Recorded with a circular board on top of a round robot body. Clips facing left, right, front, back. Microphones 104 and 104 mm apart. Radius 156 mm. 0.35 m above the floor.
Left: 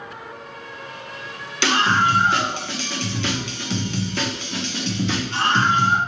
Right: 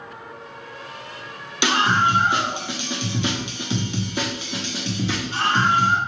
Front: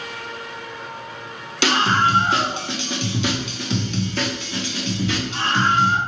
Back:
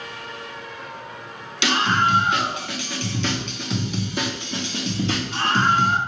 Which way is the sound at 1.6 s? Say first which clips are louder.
Even, front 2 dB; 20° right.